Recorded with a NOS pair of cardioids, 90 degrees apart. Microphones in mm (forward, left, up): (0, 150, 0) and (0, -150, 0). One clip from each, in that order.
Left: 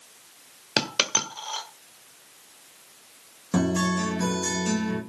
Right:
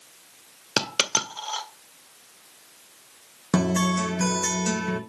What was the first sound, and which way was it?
A dropped coin, 15° right.